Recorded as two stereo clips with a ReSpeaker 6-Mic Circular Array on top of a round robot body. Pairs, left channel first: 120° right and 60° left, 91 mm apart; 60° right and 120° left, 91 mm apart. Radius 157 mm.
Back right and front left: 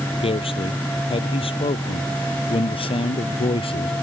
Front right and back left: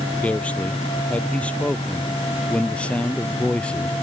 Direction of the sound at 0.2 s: 135° right.